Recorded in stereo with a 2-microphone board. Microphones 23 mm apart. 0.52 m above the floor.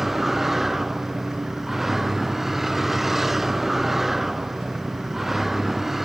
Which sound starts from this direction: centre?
A vehicle, at 0.0 s.